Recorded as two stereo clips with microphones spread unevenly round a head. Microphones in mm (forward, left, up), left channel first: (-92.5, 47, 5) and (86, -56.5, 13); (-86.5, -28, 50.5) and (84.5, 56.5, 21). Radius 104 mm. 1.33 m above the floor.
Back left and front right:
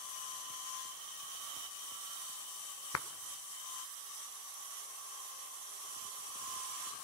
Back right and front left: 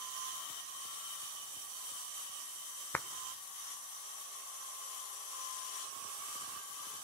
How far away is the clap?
About 0.9 m.